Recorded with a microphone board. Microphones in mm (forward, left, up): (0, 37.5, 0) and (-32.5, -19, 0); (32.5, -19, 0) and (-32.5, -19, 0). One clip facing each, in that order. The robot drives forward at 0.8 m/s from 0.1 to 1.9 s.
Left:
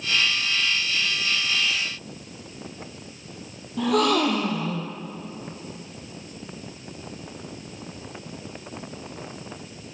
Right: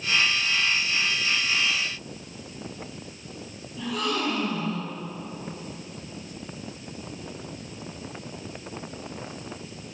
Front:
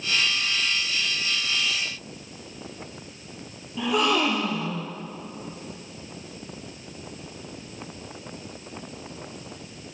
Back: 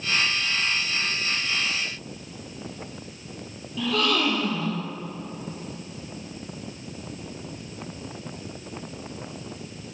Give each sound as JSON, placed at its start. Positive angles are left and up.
{"t": 3.8, "sound": "a gasp", "azimuth_deg": 70, "distance_m": 2.5}